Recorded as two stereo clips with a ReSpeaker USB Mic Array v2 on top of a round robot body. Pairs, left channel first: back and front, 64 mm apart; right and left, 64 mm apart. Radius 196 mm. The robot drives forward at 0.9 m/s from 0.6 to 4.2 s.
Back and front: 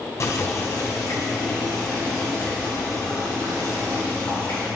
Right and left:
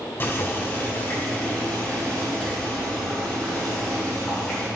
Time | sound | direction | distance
0.2 | boiling | 140° right | 1.9 m